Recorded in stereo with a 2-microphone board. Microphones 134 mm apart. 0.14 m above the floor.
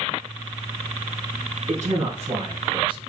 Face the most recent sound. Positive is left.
turn(degrees=-35)  # may be behind; listen again after turning